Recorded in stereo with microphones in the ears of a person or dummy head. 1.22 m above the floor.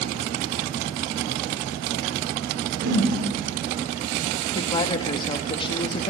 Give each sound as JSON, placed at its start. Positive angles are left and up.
{"t": 2.8, "sound": "a whoosh", "side_deg": -75, "distance_m": 5.0}
{"t": 4.5, "sound": "a woman speaking", "side_deg": 30, "distance_m": 1.4}